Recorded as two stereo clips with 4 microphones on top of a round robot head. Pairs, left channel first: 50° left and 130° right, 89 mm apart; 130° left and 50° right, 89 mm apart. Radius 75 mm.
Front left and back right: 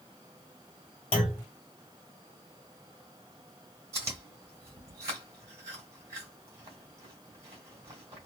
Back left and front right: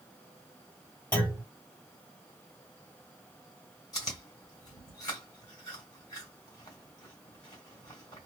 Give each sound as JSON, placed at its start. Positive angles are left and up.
{"t": 1.1, "sound": "a clunk", "azimuth_deg": 55, "distance_m": 1.5}
{"t": 3.9, "sound": "chewing", "azimuth_deg": 175, "distance_m": 1.5}